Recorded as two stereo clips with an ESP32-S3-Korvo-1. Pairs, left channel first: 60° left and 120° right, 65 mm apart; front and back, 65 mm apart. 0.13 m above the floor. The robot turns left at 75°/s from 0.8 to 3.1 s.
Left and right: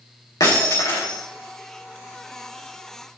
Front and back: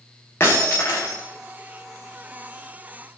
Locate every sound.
0.4 s breaking glass: 55° left, 6 m; by 1.2 s 25° left, 6 m